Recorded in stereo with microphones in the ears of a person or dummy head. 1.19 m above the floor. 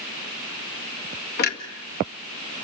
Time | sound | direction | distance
1.4 | a clunk | 60° left (ahead or behind) | 2 m